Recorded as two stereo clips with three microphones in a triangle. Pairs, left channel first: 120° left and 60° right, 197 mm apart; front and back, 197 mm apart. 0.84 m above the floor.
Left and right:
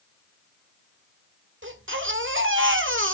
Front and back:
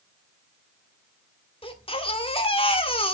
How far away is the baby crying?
About 1.3 m.